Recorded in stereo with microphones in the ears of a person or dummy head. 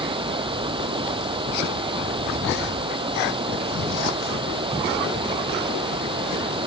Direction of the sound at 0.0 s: 25° right (ahead or behind).